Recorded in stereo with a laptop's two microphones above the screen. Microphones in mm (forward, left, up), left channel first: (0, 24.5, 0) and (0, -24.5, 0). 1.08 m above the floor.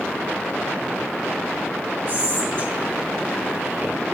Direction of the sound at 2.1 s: 50° right (ahead or behind).